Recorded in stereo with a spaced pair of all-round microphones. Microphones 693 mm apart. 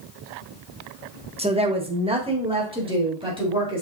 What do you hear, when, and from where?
1.4 s a woman speaking: 10° right (ahead or behind), 0.7 m; by 3.8 s 5° right (ahead or behind), 2.5 m